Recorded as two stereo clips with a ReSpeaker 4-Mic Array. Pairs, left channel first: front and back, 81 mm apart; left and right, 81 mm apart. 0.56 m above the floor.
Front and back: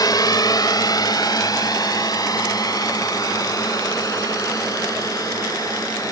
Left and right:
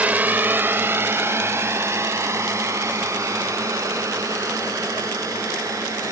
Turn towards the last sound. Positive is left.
turn(degrees=-45)